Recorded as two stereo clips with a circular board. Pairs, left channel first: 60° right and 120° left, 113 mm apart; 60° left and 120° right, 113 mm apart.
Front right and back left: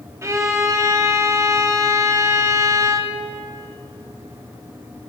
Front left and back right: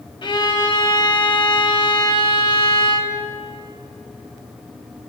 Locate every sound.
0.2 s a violin: 70° left, 0.7 m